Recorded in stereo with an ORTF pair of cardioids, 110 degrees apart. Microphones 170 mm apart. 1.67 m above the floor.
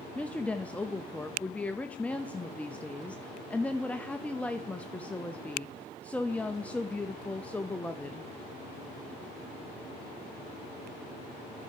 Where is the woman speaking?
10° left, 0.6 m.